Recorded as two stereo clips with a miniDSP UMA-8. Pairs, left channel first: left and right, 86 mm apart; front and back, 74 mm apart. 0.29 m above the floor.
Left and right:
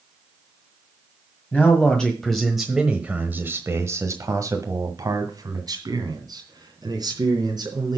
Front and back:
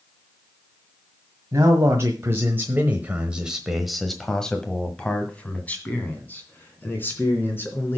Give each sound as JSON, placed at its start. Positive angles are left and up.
{"t": 1.5, "sound": "a man speaking", "azimuth_deg": 155, "distance_m": 1.6}